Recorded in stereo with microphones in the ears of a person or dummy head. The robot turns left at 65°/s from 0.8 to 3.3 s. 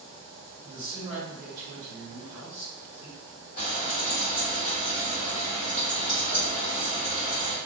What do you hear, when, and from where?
0.6 s a man speaking: 15° right, 1.5 m; by 3.2 s 165° right, 1.5 m
3.6 s frying: 40° left (ahead or behind), 1.4 m